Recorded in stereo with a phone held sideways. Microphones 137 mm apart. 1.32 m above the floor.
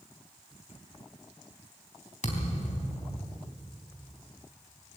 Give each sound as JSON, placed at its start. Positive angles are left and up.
{"t": 2.2, "sound": "a thud", "side_deg": 70, "distance_m": 3.5}